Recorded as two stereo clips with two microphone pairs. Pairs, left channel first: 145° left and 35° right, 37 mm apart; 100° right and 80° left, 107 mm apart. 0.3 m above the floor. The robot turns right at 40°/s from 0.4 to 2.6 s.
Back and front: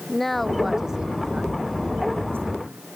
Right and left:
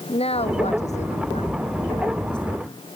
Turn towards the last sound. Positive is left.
turn(degrees=-40)